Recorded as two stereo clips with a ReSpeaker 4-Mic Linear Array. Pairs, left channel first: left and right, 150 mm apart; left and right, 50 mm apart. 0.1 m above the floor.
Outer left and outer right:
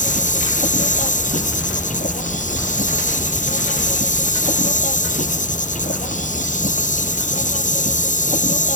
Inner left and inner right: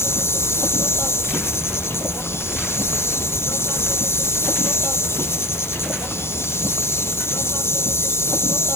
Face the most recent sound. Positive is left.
turn(degrees=60)  # may be behind; listen again after turning